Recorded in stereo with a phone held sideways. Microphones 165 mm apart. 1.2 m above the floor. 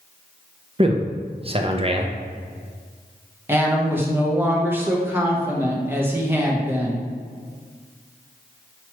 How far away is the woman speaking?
About 0.8 m.